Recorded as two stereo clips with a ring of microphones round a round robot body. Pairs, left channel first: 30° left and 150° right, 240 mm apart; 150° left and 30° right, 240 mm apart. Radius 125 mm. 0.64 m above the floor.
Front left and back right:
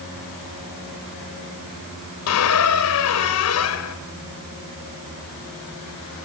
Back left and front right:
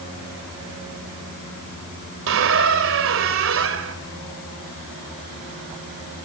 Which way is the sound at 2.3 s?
5° left.